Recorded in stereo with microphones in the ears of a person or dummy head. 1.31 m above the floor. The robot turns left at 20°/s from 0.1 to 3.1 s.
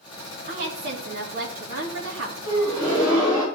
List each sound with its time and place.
0.5 s a woman speaking: 60° right, 2.5 m; by 2.4 s 95° right, 2.5 m
2.5 s a gasp: 20° right (ahead or behind), 3 m; by 3.5 s 5° right (ahead or behind), 3 m